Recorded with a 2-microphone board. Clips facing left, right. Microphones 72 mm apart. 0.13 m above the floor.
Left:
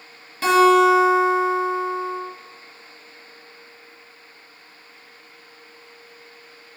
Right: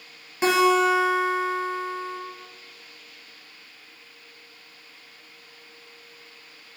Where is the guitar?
20° right (ahead or behind), 1.1 m.